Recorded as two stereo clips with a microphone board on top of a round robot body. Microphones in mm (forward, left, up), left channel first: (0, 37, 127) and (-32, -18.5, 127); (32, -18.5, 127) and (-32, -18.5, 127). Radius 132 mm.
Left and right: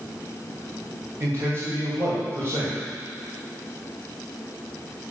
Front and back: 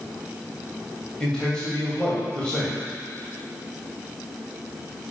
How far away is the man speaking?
About 3 m.